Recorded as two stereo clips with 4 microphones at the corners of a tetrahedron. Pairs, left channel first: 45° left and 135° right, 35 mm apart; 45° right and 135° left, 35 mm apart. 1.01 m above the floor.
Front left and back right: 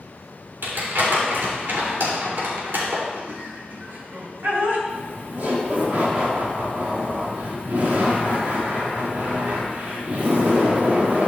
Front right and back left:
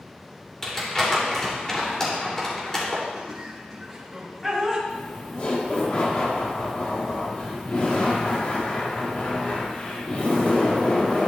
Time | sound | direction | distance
0.6 | crumpling | 120° right | 3 m
3.1 | laughter | 140° right | 3 m
4.9 | laughter | 90° right | 2.5 m